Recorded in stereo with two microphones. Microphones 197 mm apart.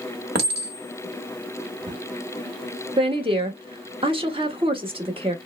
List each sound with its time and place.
0.3 s a clink: 55° right (ahead or behind), 1.2 m
3.0 s a woman speaking: 25° right (ahead or behind), 0.8 m